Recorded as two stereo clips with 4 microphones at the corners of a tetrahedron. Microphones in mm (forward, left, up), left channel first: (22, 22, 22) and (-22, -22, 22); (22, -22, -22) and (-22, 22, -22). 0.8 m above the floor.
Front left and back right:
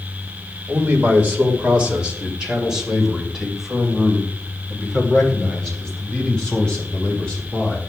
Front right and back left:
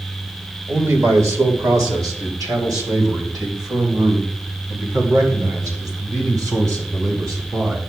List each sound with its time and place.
0.7 s a man speaking: 170° left, 3 m; by 7.8 s 115° left, 5.5 m